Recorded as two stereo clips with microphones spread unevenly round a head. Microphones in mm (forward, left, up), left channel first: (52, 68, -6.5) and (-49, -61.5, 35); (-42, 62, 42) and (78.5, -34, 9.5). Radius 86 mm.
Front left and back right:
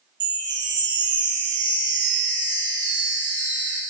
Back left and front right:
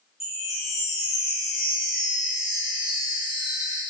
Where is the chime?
130° right, 0.9 m.